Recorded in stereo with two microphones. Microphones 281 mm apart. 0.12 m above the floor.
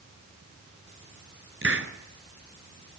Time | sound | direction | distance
1.6 | a hiss | 50° right (ahead or behind) | 0.9 m